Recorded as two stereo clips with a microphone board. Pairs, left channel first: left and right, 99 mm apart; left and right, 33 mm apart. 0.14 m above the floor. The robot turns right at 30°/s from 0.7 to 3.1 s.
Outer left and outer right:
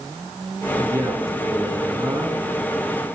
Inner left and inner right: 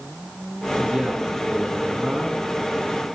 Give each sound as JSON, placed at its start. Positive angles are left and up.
{"t": 0.8, "sound": "a man speaking", "azimuth_deg": -130, "distance_m": 1.5}